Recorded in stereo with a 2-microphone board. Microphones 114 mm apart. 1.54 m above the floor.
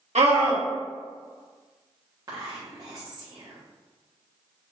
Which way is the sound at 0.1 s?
80° right.